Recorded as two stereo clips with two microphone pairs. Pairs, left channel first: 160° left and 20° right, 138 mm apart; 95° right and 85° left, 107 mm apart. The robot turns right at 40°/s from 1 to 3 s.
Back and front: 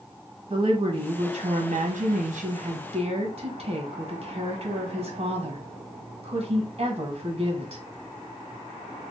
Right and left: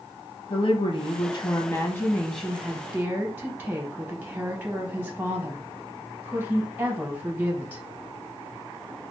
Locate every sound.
0.5 s a woman speaking: 70° right, 0.8 m; by 7.8 s 10° left, 0.8 m